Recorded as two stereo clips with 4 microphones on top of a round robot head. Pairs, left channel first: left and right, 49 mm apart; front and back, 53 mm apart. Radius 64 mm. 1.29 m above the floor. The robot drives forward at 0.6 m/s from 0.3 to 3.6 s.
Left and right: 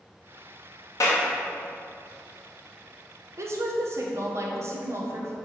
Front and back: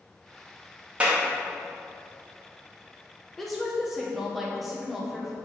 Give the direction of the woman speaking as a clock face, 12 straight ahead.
3 o'clock.